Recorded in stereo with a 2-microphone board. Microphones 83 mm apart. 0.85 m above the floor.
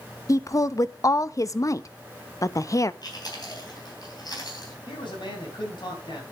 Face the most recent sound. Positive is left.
turn(degrees=70)  # may be behind; listen again after turning